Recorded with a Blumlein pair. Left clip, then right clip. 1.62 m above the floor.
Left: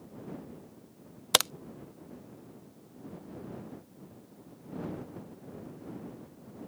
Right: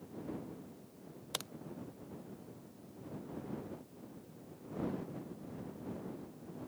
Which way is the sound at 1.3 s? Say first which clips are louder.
Left 17 dB; 35° left.